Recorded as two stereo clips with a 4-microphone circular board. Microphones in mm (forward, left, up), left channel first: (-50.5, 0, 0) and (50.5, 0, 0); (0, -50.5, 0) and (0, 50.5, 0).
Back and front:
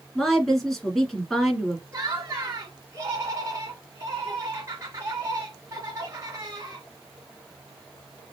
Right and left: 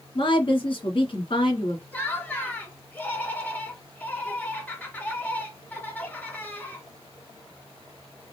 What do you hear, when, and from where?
0.1 s a woman speaking: 90° right, 2 m
1.9 s laughter: 30° right, 1.7 m